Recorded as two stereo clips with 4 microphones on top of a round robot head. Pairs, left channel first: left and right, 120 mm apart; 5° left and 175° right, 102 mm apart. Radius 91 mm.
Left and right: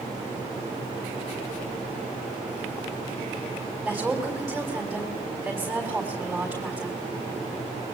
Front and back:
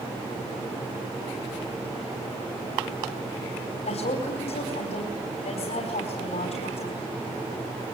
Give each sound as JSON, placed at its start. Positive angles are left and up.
{"t": 3.8, "sound": "a woman speaking", "azimuth_deg": 0, "distance_m": 4.0}